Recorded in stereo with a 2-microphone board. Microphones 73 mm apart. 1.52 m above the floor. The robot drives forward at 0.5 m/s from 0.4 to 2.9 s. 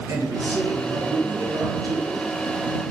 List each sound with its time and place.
0.1 s a man speaking: 55° right (ahead or behind), 1.0 m; by 2.1 s 65° right (ahead or behind), 0.9 m